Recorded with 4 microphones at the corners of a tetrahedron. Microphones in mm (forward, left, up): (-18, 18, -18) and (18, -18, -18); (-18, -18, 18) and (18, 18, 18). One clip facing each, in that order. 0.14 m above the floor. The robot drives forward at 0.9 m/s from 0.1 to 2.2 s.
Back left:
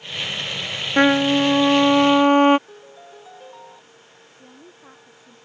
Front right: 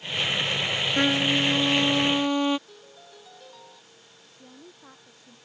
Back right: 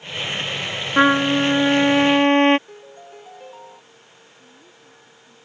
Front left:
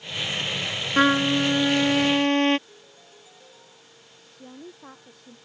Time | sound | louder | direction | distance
1.0 | a trumpet | back left 9 dB, back right 4 dB | 160° left | ?
2.7 | a piano | back left 6 dB, back right 10 dB | 165° right | ?
4.3 | a woman speaking | back left 2 dB, front left 6 dB | 55° left | ?